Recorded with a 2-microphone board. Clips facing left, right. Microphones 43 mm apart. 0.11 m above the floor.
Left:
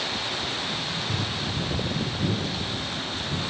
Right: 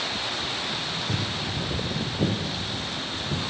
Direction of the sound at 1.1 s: 40° right (ahead or behind).